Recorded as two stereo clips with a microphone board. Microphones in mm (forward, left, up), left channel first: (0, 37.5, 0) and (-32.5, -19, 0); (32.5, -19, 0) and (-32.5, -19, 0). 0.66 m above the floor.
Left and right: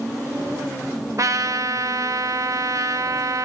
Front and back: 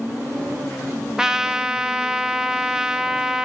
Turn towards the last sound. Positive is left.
turn(degrees=-100)